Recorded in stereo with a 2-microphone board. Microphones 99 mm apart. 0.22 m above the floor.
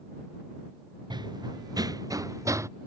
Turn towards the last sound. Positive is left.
turn(degrees=-30)  # may be behind; listen again after turning